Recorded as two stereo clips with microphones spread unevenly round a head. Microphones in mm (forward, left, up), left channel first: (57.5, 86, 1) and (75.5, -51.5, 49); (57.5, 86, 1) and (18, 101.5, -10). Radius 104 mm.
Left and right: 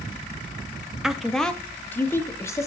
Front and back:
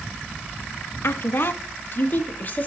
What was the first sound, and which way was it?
A woman speaking, 5° left.